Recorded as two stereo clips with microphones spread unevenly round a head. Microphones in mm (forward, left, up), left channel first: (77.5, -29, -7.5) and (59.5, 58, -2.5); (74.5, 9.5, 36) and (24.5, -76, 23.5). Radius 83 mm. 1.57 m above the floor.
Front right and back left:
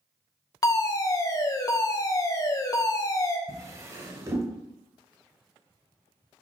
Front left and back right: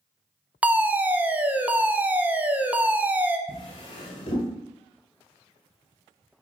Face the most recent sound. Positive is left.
turn(degrees=60)